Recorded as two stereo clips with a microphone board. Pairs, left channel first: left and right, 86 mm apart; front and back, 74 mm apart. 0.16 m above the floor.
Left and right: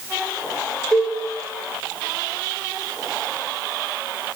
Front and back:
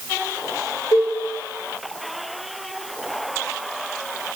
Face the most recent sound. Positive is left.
turn(degrees=10)